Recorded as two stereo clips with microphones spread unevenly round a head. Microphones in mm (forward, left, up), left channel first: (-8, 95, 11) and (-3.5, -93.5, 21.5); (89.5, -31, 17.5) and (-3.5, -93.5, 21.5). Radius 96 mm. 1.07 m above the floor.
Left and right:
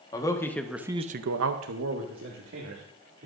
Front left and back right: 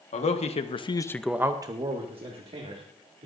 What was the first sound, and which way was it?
A man speaking, 20° left.